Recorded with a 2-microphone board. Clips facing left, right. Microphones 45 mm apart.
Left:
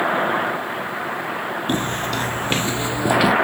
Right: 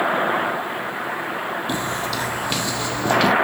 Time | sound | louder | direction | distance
1.7 | footsteps | left 2 dB | 40° left (ahead or behind) | 1.0 m